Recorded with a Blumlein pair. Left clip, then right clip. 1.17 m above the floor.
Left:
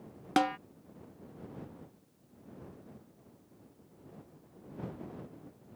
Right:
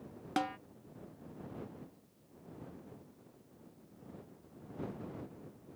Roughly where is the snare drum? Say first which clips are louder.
Left 7 dB; ahead.